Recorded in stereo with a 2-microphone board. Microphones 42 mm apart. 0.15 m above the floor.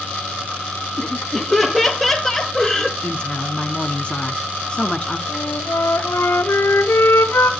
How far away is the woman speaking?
About 1.1 m.